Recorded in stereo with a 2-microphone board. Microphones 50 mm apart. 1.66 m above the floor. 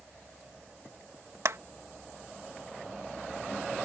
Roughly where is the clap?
Right.